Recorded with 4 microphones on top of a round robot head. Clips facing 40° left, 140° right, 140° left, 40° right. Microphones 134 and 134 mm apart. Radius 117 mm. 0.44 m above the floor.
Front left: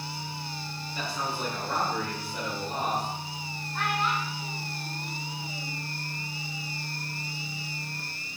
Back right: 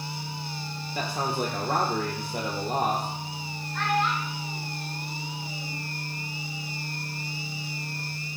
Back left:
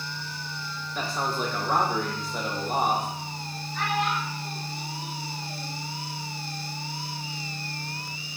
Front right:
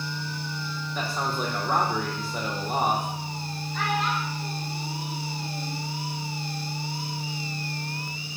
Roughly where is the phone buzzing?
I don't hear a phone buzzing.